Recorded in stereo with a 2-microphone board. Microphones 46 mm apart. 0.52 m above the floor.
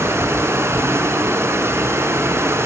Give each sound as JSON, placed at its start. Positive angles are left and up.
{"t": 0.0, "sound": "running water", "side_deg": -65, "distance_m": 4.0}